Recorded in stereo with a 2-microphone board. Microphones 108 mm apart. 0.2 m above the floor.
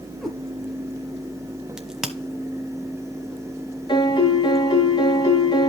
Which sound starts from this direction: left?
A piano, at 3.9 s.